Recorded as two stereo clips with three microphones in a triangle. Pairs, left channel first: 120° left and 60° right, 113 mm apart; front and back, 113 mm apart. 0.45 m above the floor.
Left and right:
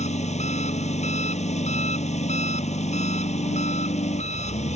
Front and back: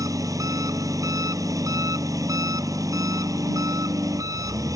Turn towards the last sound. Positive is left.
turn(degrees=120)